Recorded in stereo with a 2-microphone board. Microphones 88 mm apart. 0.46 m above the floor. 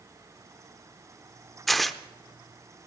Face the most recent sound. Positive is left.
turn(degrees=0)  # may be behind; listen again after turning